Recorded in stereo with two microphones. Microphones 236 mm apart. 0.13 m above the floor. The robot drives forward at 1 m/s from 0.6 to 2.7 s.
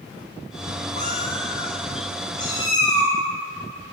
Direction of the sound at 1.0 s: 30° left (ahead or behind).